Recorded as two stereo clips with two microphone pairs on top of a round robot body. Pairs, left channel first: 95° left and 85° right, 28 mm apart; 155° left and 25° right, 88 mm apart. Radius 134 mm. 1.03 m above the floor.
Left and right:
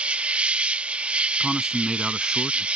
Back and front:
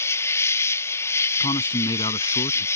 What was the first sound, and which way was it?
An insect, 140° right.